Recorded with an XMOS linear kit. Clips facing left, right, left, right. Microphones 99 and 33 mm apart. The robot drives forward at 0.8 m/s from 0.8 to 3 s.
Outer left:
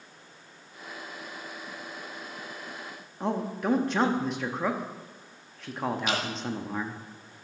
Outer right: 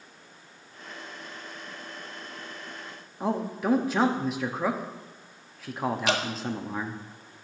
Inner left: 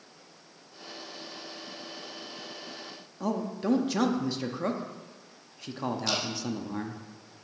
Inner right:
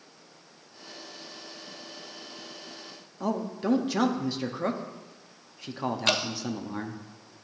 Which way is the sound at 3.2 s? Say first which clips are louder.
Outer right 1 dB, inner right 1 dB; 5° right (ahead or behind).